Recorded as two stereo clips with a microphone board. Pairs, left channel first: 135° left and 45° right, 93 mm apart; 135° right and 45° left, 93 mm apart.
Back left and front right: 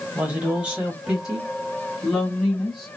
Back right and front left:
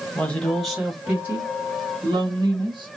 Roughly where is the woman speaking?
Right.